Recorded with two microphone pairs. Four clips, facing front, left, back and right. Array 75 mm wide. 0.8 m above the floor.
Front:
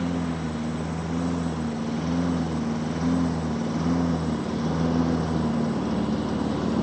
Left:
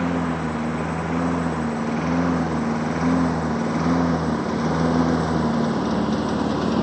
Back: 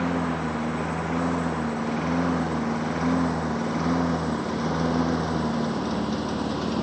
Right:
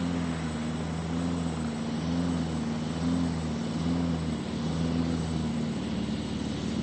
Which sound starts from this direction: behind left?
A lawn mower, at 0.0 s.